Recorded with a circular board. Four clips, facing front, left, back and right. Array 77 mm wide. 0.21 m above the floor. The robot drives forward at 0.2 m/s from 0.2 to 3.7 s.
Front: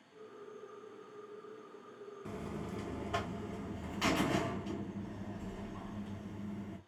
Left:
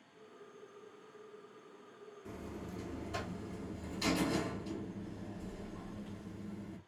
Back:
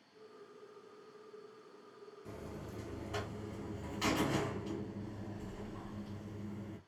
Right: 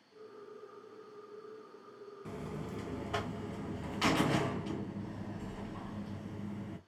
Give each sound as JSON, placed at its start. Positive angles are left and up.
{"t": 2.2, "sound": "a buzzer", "azimuth_deg": -40, "distance_m": 0.6}